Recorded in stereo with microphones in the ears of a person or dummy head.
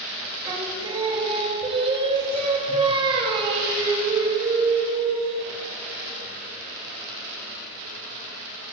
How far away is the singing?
About 2.5 m.